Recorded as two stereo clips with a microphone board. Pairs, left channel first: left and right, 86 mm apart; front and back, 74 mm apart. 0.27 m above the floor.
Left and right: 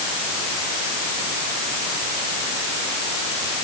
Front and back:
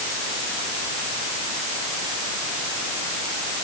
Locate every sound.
Only background noise.